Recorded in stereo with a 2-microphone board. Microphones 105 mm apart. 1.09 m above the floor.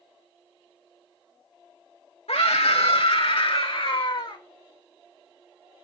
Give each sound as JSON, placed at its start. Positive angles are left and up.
{"t": 2.3, "sound": "a scream", "side_deg": 75, "distance_m": 2.5}